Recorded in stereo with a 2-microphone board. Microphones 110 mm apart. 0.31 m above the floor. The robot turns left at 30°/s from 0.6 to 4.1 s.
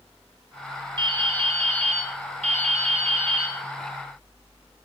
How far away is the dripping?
About 1.1 m.